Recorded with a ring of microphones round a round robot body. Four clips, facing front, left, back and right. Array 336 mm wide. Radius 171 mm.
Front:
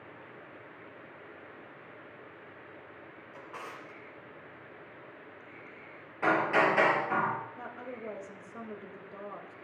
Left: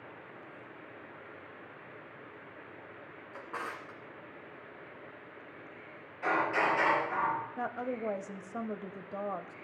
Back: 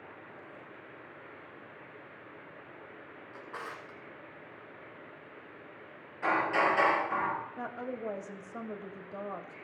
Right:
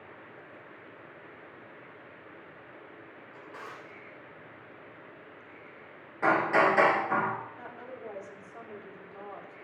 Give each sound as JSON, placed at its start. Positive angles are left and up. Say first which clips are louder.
{"t": 3.3, "sound": "a drawer", "louder": "left 5 dB, back 1 dB", "azimuth_deg": 105, "distance_m": 2.5}
{"t": 6.2, "sound": "hammering", "louder": "right 6 dB, front 2 dB", "azimuth_deg": -60, "distance_m": 5.5}
{"t": 7.6, "sound": "a woman speaking", "louder": "left 8 dB, back 4 dB", "azimuth_deg": 110, "distance_m": 1.4}